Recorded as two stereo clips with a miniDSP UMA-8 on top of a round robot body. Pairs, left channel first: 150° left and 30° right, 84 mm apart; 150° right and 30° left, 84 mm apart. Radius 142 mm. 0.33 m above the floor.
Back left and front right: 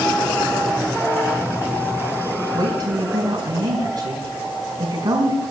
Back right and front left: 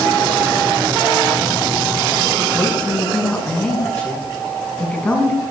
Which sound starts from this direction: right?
A woman speaking, at 2.5 s.